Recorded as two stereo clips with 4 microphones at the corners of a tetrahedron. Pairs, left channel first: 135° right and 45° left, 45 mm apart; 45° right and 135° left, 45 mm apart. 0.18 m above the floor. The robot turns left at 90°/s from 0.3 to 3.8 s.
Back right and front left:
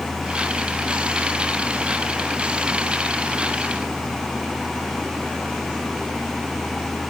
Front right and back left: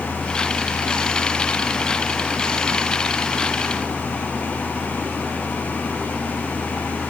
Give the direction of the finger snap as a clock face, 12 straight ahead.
I don't hear a finger snap.